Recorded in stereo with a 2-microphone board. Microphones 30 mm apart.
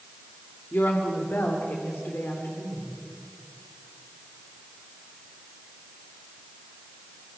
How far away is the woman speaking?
About 2 m.